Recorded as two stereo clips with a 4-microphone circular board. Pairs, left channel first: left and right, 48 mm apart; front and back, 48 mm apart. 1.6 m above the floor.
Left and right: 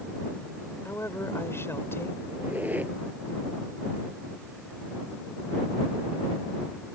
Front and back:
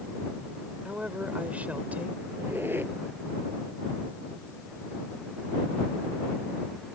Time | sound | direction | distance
0.8 | a woman speaking | 115° left | ?
2.3 | a squeak | 140° right | ?